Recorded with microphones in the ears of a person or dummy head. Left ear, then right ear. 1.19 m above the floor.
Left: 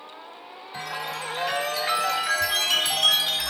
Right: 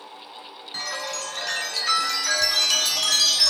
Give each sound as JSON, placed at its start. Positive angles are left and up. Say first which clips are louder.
{"t": 0.7, "sound": "a chime", "louder": "right 2 dB", "side_deg": -10, "distance_m": 3.5}